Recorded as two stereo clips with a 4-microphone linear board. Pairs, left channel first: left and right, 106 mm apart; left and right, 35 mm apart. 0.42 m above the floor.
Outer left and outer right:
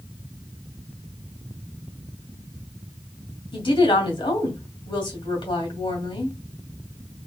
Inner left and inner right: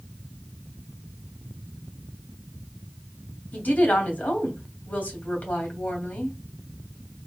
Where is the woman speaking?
50° left (ahead or behind), 2 m.